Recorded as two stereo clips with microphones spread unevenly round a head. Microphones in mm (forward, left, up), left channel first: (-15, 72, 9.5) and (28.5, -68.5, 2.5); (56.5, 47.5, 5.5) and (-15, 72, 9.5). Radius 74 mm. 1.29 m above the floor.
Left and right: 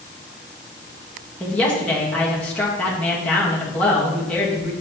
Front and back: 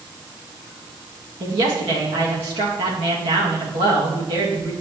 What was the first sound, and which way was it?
A woman speaking, 170° right.